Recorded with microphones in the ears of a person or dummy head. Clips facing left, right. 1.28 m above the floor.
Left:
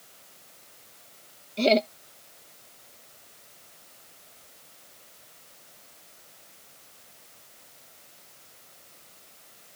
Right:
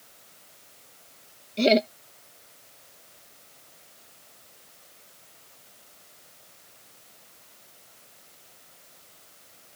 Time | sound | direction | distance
1.6 | laughter | 20° right (ahead or behind) | ?